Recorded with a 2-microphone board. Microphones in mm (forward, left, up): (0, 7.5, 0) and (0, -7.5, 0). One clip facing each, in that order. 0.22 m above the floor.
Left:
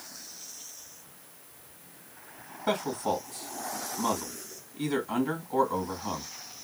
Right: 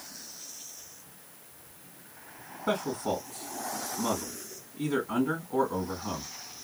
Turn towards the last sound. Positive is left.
turn(degrees=40)  # may be behind; listen again after turning